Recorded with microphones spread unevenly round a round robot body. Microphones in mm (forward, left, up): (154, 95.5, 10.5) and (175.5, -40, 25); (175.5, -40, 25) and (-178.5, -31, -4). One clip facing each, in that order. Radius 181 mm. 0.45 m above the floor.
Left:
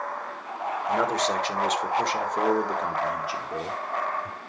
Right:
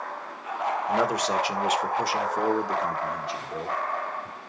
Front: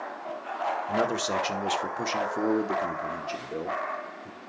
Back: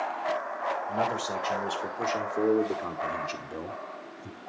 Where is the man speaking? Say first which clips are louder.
Left 1 dB, front 6 dB; straight ahead, 1.8 m; by 4.4 s 160° left, 1.4 m.